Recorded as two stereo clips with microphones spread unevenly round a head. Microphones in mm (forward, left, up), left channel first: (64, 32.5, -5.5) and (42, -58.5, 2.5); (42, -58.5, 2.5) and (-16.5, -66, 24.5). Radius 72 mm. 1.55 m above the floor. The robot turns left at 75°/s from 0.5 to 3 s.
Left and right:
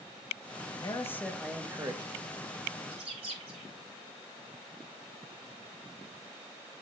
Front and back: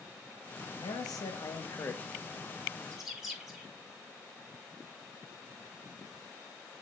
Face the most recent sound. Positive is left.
turn(degrees=-95)